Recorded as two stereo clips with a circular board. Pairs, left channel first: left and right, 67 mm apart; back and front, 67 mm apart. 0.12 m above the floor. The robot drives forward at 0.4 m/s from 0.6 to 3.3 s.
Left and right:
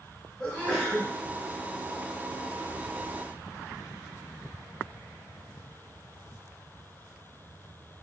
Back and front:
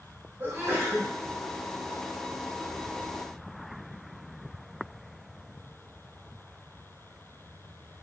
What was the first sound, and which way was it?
A sneeze, 15° left.